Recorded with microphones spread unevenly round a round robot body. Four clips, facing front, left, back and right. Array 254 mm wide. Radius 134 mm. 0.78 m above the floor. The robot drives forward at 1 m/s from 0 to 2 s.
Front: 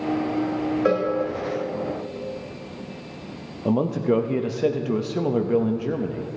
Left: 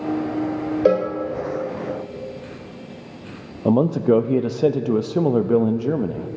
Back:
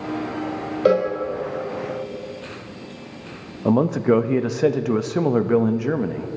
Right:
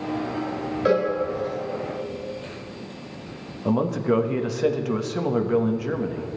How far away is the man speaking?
About 0.6 m.